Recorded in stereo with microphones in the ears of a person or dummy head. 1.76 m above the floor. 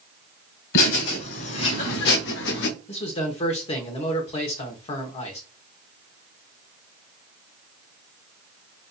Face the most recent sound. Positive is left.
turn(degrees=35)  # may be behind; listen again after turning